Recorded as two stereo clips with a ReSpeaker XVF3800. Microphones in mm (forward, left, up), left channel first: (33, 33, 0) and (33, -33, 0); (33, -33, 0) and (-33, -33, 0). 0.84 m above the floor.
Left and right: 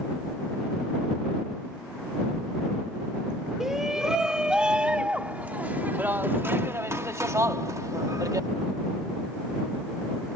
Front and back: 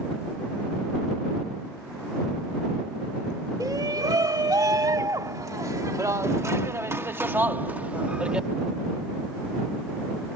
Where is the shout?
175° right; by 8.5 s 105° right.